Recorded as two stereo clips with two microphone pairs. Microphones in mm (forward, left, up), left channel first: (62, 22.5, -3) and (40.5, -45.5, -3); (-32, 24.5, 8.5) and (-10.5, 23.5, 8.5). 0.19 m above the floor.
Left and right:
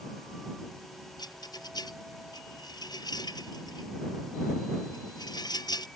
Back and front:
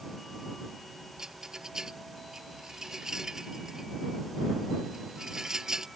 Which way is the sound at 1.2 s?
65° left.